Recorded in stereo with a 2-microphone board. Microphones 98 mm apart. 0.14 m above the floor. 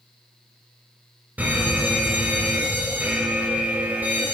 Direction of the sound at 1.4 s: 20° right (ahead or behind).